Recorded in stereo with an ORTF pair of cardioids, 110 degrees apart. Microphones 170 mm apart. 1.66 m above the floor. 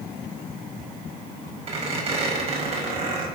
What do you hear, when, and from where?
1.7 s a squeak: 40° right, 4.5 m